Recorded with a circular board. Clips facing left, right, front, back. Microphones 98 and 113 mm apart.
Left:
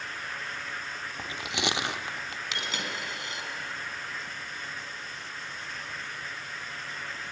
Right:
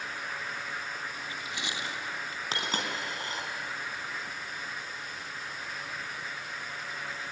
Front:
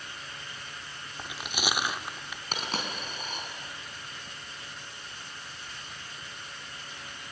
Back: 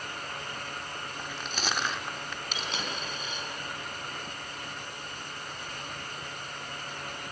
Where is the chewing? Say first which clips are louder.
Left 5 dB, front 2 dB; 80° left, 0.7 m.